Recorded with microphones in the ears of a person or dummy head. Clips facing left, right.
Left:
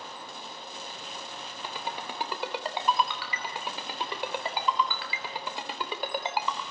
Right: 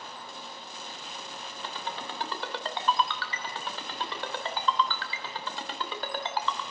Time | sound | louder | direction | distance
1.6 | a ringtone | left 1 dB | 15° left (ahead or behind) | 2.5 m